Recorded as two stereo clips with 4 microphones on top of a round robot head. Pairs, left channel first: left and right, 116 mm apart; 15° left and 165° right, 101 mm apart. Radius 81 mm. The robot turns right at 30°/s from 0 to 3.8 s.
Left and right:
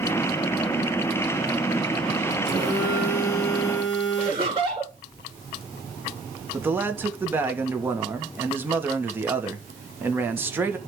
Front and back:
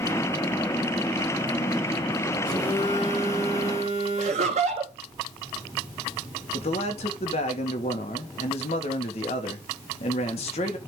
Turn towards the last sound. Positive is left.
turn(degrees=-15)